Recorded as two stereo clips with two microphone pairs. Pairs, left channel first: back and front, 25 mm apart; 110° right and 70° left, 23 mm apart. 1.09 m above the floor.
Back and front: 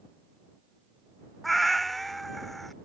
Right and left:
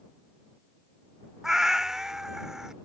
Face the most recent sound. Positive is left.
turn(degrees=110)